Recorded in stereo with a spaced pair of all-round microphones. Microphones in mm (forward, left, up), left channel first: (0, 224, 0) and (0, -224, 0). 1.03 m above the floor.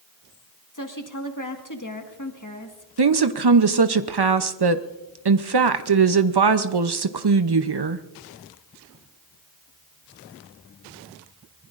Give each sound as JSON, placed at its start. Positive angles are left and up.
{"t": 0.7, "sound": "a woman speaking", "side_deg": 45, "distance_m": 1.6}
{"t": 3.0, "sound": "a woman speaking", "side_deg": -60, "distance_m": 0.7}